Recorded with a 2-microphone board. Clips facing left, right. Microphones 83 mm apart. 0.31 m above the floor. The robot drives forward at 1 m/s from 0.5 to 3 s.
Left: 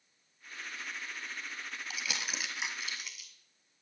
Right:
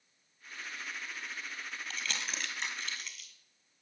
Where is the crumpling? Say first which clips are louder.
Even; 10° left (ahead or behind), 1.6 m; by 3.3 s 5° left (ahead or behind), 2.5 m.